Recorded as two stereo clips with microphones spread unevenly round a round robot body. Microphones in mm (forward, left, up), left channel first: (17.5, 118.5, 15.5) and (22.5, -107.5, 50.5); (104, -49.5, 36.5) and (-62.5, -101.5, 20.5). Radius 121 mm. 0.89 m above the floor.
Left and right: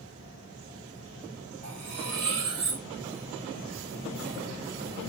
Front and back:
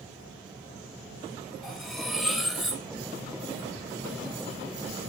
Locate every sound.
1.6 s cutlery clinking: 70° right, 2.5 m